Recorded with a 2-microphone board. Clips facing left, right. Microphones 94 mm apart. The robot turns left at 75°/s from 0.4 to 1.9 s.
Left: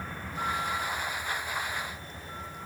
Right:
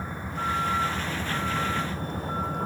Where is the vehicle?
15° right; by 2.7 s 130° right.